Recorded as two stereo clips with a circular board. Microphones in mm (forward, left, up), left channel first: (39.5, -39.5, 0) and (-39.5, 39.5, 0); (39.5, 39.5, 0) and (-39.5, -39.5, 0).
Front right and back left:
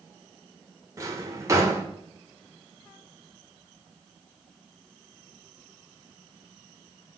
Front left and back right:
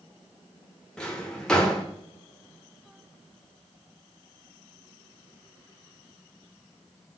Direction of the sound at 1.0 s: 120° left.